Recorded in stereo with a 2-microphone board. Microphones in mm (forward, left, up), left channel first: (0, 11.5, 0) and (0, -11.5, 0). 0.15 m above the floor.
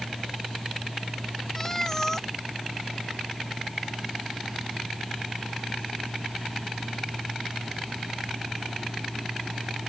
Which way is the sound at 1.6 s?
15° left (ahead or behind).